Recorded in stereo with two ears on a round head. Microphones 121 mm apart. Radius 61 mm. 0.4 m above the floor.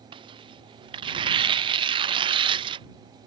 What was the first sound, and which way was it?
Tearing paper, 35° right (ahead or behind).